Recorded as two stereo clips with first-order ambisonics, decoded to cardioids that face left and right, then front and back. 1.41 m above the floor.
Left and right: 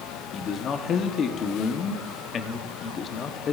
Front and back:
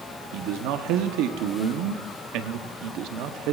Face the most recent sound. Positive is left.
turn(degrees=150)